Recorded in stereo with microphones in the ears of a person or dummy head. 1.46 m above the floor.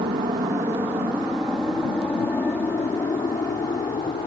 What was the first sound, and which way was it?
An aircraft, 30° right (ahead or behind).